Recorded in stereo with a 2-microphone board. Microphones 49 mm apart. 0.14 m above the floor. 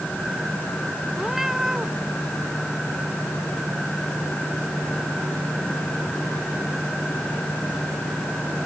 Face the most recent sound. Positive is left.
turn(degrees=-5)  # may be behind; listen again after turning